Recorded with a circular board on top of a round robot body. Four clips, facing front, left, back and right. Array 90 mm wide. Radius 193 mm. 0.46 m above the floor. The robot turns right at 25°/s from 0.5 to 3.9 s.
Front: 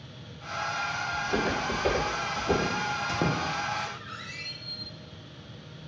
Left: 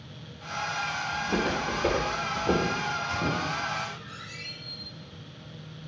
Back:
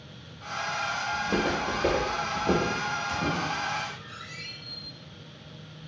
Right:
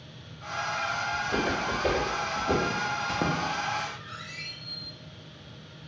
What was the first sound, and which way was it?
Footsteps, 170° left.